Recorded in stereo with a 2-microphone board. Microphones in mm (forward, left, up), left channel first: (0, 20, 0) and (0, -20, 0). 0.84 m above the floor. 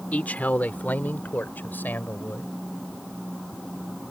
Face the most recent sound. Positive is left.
turn(degrees=55)  # may be behind; listen again after turning